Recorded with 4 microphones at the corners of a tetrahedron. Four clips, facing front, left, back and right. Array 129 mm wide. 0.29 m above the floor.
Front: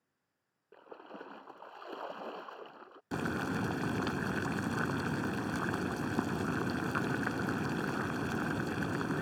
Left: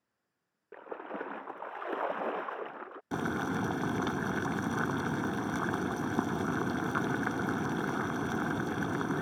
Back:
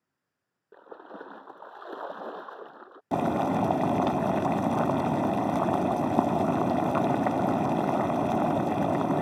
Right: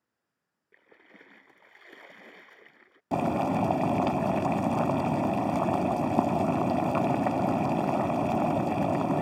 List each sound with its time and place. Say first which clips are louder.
0.7 s a splash: left 17 dB, back 5 dB; 110° left
3.1 s boiling: right 7 dB, back 10 dB; 145° right